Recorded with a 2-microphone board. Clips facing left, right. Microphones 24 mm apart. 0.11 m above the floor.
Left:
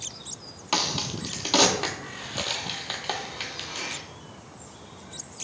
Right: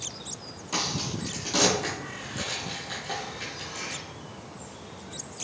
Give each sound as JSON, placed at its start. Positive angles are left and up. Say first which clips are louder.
{"t": 0.7, "sound": "a crack", "louder": "left 3 dB", "side_deg": 55, "distance_m": 0.8}